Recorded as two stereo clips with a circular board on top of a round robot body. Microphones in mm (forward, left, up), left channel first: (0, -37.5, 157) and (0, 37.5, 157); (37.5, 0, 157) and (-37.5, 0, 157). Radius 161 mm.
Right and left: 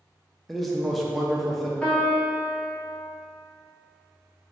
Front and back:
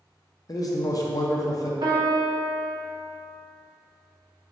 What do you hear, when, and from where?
0.5 s a man speaking: straight ahead, 0.7 m
1.8 s a piano: 165° right, 0.7 m